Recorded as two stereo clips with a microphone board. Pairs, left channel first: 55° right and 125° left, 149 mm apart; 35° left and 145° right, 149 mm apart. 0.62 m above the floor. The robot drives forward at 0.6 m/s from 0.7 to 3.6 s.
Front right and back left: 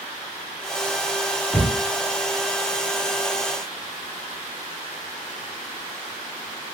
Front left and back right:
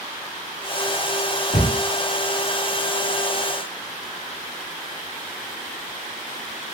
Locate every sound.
1.5 s a cupboard door: 30° left, 1.3 m; by 1.7 s 35° left, 1.2 m